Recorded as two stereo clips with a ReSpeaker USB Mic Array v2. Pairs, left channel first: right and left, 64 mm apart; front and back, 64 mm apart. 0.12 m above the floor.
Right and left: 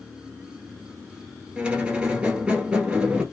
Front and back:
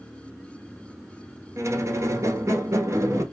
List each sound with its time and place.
1.6 s a squeak: 160° left, 0.7 m